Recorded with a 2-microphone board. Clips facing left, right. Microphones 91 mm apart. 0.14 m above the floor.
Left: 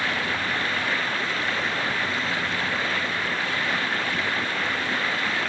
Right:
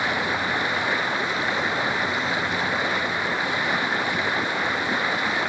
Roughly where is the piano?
I don't hear a piano.